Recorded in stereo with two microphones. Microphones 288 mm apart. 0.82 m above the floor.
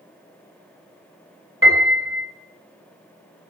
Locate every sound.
1.6 s a piano: 45° right (ahead or behind), 3 m